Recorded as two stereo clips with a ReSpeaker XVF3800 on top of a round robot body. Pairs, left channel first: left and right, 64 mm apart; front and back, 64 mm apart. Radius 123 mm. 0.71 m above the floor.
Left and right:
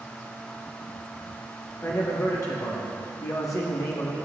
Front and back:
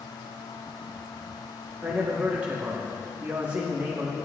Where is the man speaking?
115° left, 1.7 m.